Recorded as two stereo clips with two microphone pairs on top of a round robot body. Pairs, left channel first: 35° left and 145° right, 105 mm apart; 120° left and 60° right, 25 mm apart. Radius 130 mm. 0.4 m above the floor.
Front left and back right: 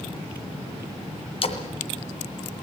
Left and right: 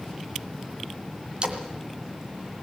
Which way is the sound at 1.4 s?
5° left.